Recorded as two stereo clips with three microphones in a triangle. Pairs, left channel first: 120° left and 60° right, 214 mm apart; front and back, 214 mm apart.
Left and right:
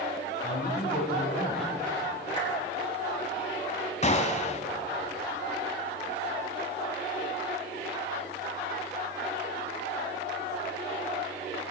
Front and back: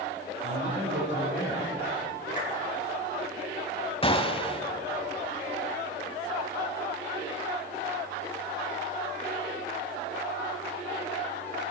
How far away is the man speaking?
About 5.5 m.